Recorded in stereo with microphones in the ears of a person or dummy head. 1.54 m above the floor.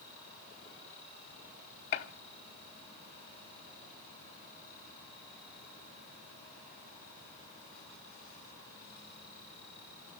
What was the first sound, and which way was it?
A gunshot, 45° left (ahead or behind).